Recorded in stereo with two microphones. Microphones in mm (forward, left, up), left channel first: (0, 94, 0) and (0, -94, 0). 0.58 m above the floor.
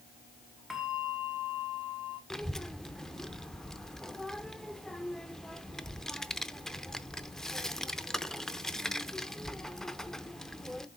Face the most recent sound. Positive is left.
turn(degrees=0)  # may be behind; listen again after turning